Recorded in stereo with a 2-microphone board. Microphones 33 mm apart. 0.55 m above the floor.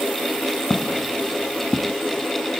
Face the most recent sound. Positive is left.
turn(degrees=-25)  # may be behind; listen again after turning